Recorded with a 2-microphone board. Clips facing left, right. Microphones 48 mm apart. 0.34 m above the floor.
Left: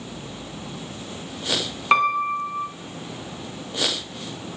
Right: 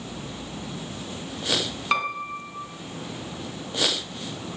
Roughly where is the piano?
Left.